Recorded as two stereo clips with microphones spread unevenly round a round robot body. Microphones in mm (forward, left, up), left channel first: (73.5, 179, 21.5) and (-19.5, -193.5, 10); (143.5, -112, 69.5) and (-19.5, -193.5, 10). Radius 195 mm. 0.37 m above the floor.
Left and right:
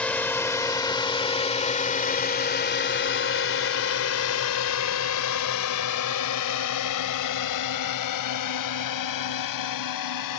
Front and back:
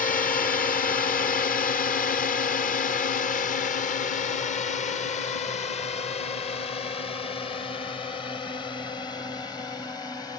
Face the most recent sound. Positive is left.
turn(degrees=110)